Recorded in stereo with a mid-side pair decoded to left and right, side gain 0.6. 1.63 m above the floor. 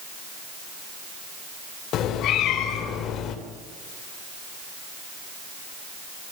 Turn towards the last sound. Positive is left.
turn(degrees=60)